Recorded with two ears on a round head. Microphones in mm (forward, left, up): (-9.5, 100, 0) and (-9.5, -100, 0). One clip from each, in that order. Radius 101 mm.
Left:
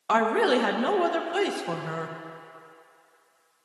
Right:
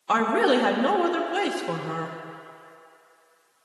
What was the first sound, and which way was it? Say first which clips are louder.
A woman speaking: right 1 dB; 10° left (ahead or behind).